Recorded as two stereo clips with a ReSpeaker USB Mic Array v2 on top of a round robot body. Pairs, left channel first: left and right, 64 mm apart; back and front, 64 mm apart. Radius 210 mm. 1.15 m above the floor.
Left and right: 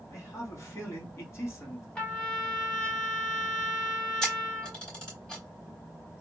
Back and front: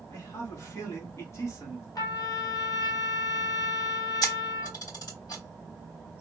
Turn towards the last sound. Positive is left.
turn(degrees=170)